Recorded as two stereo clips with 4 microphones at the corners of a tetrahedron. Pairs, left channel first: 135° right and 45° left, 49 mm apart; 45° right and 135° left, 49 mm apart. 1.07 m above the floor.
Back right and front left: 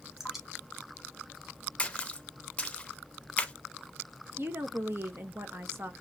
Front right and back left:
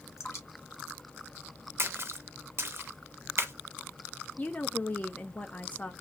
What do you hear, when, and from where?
0.2 s dripping: 35° right, 1.1 m
1.8 s a splash: 160° left, 0.5 m
4.4 s a woman speaking: 10° left, 0.8 m